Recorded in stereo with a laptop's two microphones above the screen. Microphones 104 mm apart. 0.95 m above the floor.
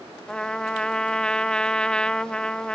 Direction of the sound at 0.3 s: 5° left (ahead or behind).